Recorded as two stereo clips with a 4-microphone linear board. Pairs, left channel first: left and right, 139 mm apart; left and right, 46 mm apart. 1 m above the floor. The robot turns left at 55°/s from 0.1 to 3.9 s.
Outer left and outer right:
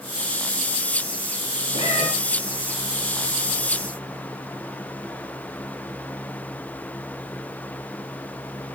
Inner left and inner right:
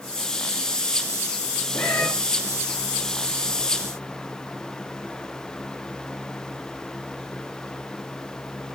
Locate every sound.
1.7 s a cat meowing: 45° left (ahead or behind), 3 m; by 2.1 s 60° left (ahead or behind), 3 m